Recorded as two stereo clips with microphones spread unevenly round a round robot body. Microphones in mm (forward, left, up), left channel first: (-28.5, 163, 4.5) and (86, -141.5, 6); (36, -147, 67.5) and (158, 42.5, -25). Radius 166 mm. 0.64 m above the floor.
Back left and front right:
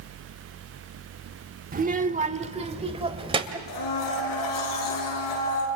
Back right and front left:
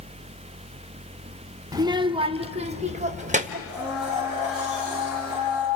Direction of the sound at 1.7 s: 5° right.